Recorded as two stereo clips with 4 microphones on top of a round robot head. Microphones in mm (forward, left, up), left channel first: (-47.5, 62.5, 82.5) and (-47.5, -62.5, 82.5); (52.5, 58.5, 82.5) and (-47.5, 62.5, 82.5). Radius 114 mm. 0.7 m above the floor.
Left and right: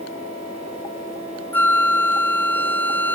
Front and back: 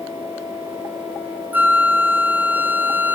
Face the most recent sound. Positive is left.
turn(degrees=140)